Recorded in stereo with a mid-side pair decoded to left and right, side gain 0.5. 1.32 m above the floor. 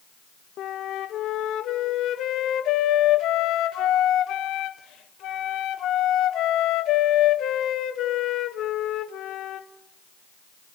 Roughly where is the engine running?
I don't hear an engine running.